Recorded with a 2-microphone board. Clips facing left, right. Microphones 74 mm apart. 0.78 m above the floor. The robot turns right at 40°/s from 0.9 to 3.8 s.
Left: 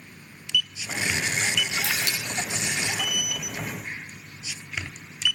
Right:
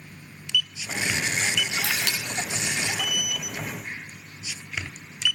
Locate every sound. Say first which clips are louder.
1.8 s a camera shutter: even; 70° right (ahead or behind), 2.5 m; by 2.2 s 85° right, 2.5 m